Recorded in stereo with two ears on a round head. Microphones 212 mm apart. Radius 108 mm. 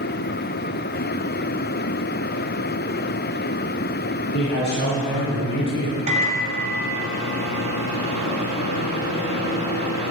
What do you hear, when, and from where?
4.3 s a man speaking: 40° left (ahead or behind), 4 m; by 6.0 s 60° left (ahead or behind), 3.5 m
6.1 s a microwave: 30° right (ahead or behind), 2 m